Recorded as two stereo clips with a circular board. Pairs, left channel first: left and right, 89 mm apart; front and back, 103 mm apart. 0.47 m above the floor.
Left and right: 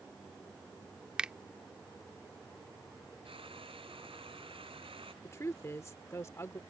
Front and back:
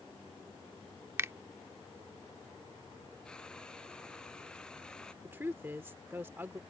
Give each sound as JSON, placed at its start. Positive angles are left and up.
{"t": 1.2, "sound": "a finger snap", "azimuth_deg": -155}
{"t": 3.2, "sound": "frying", "azimuth_deg": -80}
{"t": 5.2, "sound": "a woman speaking", "azimuth_deg": 125}